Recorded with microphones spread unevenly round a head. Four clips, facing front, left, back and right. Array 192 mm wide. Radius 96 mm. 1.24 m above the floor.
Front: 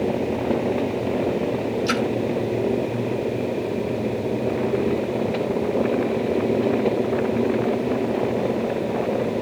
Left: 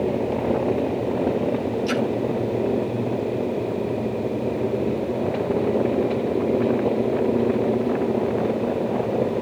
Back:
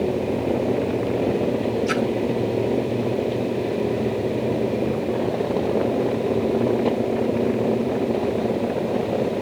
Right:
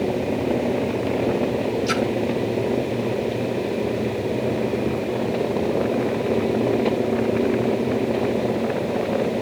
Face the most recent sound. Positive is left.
turn(degrees=10)